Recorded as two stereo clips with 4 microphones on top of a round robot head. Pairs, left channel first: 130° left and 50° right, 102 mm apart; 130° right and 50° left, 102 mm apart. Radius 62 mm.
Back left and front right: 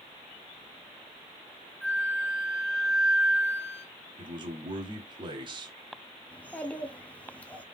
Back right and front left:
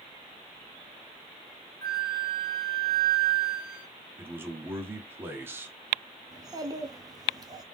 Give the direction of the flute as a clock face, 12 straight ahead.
5 o'clock.